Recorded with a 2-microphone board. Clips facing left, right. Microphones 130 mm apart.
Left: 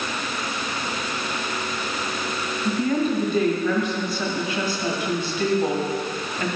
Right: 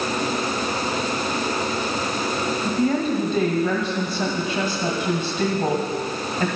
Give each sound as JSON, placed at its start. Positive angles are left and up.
{"t": 2.6, "sound": "a woman speaking", "side_deg": -20, "distance_m": 1.6}